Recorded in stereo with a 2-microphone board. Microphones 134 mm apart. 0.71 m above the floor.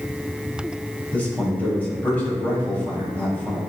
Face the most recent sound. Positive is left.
turn(degrees=15)  # may be behind; listen again after turning